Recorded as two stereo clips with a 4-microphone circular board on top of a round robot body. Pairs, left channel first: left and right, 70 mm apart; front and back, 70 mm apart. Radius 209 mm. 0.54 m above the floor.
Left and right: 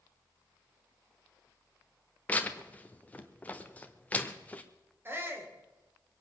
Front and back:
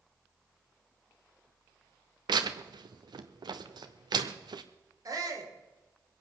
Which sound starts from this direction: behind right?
A shout, at 5.0 s.